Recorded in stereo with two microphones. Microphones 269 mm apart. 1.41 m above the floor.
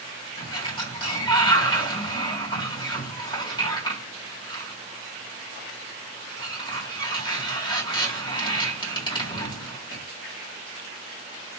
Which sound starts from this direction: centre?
A sliding door, at 0.4 s.